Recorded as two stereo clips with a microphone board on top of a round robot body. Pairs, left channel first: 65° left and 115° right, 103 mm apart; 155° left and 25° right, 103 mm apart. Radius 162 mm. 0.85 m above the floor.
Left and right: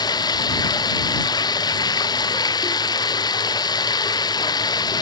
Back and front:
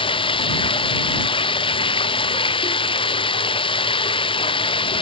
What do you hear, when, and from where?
0.0 s running water: 120° left